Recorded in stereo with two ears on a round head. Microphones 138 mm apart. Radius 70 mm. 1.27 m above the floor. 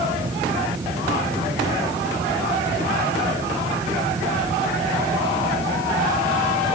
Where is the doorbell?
I don't hear a doorbell.